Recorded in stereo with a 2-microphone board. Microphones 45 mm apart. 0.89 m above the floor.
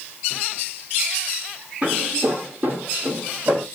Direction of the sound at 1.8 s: 25° right (ahead or behind).